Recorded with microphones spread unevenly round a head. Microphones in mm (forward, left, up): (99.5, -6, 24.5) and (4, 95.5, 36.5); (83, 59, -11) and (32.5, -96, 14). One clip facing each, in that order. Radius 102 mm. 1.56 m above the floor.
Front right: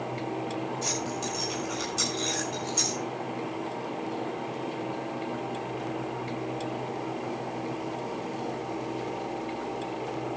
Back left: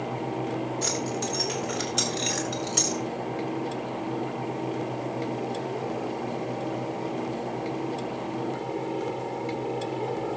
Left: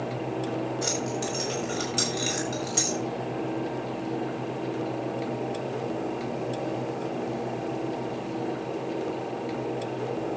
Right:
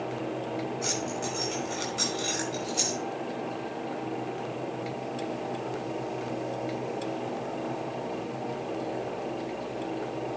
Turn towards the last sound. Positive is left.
turn(degrees=125)